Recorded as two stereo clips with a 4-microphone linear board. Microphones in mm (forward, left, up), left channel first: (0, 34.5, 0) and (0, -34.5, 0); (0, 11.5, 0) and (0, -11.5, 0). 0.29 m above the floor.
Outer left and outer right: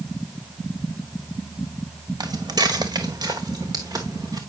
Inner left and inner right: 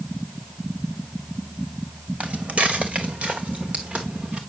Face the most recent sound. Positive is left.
turn(degrees=-60)  # may be behind; listen again after turning